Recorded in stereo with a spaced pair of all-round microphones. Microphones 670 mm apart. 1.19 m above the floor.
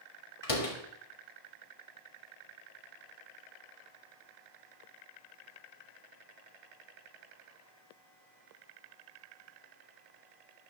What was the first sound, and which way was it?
A door slam, 55° left (ahead or behind).